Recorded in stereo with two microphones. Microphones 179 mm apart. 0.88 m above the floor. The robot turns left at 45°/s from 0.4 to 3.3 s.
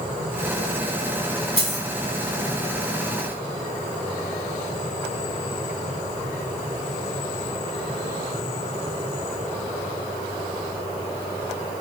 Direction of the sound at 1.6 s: 40° left (ahead or behind).